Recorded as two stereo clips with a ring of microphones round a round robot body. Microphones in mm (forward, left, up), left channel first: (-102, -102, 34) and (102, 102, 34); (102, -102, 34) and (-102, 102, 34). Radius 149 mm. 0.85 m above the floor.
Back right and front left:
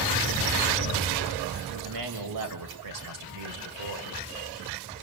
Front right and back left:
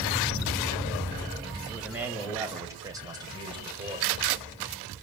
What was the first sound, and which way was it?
A man speaking, 50° left.